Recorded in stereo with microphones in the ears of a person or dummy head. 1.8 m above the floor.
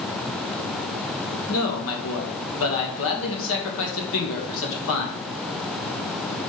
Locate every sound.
1.5 s a man speaking: 75° left (ahead or behind), 2.5 m